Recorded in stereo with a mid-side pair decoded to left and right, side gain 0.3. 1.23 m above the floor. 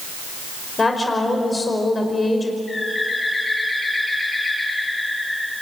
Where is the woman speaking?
40° left, 5 m.